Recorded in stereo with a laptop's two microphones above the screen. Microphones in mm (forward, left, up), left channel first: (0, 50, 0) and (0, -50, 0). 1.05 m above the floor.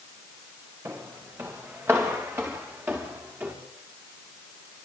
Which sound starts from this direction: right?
Footsteps, at 0.8 s.